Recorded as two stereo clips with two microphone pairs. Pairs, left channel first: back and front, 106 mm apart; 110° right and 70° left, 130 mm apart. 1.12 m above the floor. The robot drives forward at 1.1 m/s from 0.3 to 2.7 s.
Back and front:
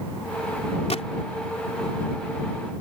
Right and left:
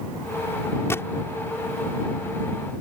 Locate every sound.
0.9 s a gunshot: straight behind